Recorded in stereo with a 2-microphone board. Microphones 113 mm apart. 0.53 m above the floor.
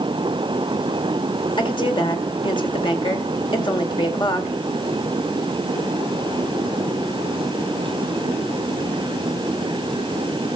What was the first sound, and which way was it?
A woman speaking, 45° left (ahead or behind).